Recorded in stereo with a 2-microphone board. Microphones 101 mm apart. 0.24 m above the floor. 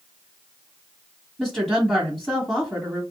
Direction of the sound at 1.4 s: 5° left (ahead or behind).